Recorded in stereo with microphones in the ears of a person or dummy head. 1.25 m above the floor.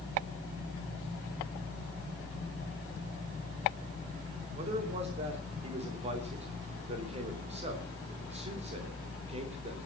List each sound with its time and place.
4.5 s a man speaking: 40° right (ahead or behind), 3 m